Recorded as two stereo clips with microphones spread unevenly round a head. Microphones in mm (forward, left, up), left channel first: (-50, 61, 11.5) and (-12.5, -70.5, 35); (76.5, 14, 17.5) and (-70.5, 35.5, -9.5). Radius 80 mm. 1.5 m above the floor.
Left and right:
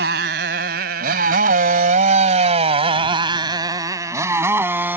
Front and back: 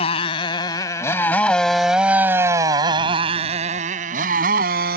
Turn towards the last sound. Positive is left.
turn(degrees=-145)